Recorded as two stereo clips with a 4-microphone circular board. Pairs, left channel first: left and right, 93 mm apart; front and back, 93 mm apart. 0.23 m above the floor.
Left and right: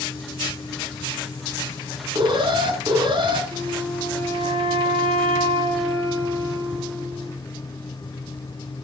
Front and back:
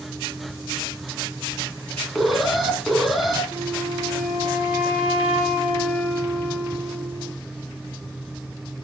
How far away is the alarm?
About 3 m.